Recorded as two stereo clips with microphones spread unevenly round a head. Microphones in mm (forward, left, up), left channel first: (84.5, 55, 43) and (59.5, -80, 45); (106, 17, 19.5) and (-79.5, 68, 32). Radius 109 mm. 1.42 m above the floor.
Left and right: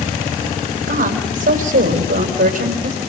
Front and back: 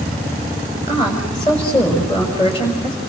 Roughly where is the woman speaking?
Right.